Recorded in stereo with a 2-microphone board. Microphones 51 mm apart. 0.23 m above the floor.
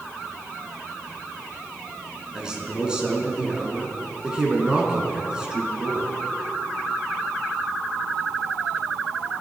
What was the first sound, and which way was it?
A man speaking, 15° right (ahead or behind).